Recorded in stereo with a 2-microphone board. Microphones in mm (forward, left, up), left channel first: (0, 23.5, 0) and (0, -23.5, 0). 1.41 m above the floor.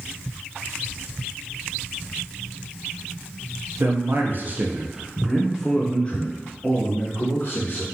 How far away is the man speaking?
About 0.9 m.